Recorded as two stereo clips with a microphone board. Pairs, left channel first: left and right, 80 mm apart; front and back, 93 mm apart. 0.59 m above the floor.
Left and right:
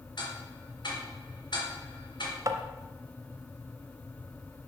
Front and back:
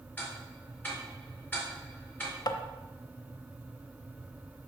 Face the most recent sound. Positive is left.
turn(degrees=-45)